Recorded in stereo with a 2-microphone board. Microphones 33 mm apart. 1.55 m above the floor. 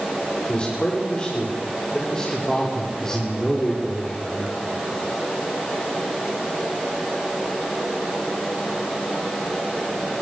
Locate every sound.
0.5 s a man speaking: 35° left (ahead or behind), 6.5 m; by 4.9 s 5° left (ahead or behind), 5 m